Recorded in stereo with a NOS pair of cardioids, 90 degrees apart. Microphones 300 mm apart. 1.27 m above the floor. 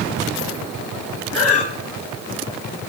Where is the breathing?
50° left, 1.2 m.